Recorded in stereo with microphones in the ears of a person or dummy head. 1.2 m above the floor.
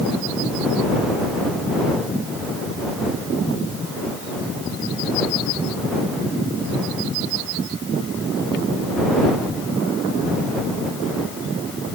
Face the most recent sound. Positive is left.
No sound to turn to.